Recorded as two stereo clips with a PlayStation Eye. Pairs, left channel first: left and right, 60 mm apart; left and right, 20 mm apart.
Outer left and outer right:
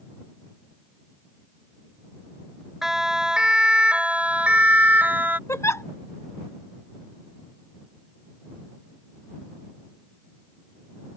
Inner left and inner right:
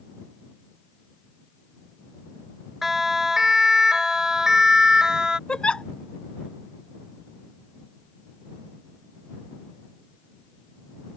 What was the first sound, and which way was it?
A siren, 5° right (ahead or behind).